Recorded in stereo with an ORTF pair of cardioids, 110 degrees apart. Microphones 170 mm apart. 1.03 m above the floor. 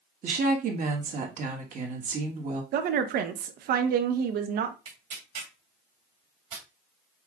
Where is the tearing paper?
55° right, 2.5 m.